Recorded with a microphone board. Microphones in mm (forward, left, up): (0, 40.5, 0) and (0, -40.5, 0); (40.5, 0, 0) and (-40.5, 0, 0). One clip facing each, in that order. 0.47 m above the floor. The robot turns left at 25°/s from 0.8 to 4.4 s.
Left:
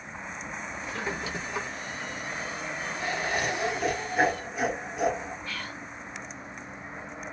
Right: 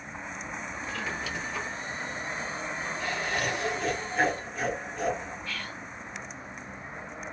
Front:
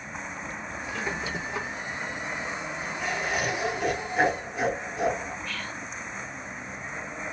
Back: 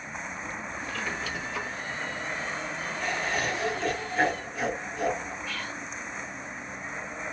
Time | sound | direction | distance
0.9 | a squeak | 55° left | 0.5 m
3.0 | laughter | 70° left | 0.7 m
5.5 | whispering | 110° left | 1.0 m